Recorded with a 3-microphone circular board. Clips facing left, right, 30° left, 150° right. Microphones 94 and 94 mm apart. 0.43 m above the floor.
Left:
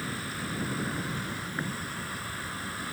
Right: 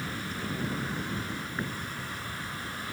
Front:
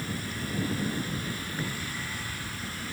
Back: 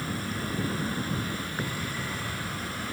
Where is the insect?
175° left.